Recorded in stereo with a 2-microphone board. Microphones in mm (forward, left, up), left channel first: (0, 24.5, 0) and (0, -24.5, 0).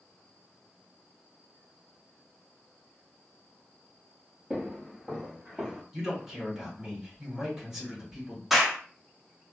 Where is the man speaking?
10° right (ahead or behind), 1.6 m.